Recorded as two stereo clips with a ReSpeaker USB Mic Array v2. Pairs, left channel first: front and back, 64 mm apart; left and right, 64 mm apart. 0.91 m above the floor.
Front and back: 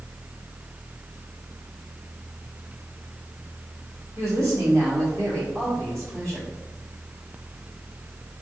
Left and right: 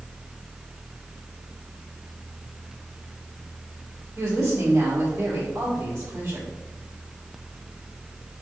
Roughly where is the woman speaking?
Behind right.